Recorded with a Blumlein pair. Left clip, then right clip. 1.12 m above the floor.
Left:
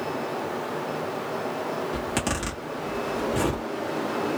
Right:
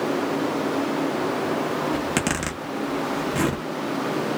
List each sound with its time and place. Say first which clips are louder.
1.9 s a zipper: right 3 dB; 20° right, 1.3 m